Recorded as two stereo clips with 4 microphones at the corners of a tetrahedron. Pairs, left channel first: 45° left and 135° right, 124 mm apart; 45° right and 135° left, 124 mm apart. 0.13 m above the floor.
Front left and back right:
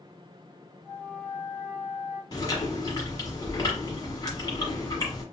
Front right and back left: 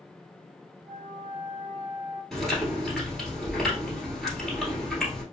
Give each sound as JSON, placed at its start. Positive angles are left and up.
{"t": 0.8, "sound": "a flute", "azimuth_deg": -65, "distance_m": 1.4}
{"t": 2.3, "sound": "chewing", "azimuth_deg": 45, "distance_m": 1.5}